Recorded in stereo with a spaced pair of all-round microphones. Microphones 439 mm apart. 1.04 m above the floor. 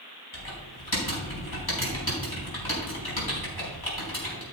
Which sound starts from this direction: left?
Typing on a keyboard, at 0.3 s.